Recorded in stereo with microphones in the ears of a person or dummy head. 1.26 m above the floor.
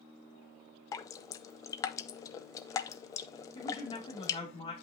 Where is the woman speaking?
25° left (ahead or behind), 2.5 m.